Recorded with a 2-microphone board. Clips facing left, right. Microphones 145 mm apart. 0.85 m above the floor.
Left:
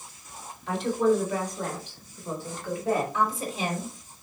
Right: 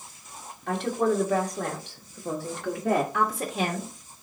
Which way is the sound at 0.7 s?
55° right (ahead or behind).